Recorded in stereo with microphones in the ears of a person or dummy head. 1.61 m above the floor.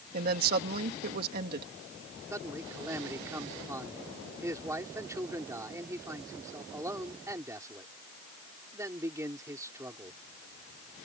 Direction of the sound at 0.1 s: 55° right (ahead or behind).